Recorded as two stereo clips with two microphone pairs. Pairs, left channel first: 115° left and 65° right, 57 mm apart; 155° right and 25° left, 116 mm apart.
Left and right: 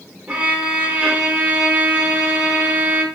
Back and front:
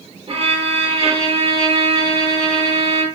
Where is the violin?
5° right, 0.7 m.